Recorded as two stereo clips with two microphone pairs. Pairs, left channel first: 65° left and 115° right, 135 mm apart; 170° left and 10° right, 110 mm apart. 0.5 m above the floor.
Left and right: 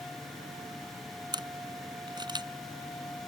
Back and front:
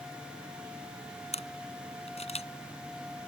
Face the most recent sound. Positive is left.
turn(degrees=-170)